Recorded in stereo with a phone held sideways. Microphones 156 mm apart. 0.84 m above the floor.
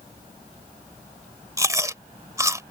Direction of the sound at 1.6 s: 20° right (ahead or behind).